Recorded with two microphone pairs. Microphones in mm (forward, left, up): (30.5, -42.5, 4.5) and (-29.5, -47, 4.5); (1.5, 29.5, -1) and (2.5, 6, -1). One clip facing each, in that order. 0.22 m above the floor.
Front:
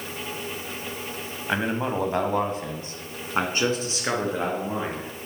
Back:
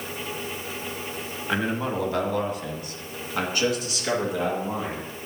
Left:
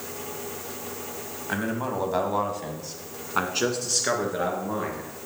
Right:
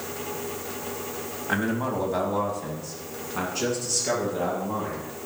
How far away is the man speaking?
About 1.0 m.